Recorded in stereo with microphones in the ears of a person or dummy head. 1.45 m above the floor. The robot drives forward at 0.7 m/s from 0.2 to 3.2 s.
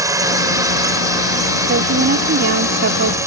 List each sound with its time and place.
0.0 s a drone: 15° right (ahead or behind)
1.7 s a woman speaking: 60° right (ahead or behind); by 3.2 s 75° right (ahead or behind)